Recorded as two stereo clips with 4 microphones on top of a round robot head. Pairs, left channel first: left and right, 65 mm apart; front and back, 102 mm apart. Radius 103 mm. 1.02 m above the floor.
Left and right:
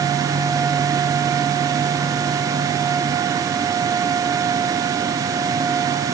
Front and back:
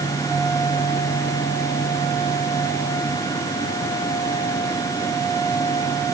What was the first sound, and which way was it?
Only background noise.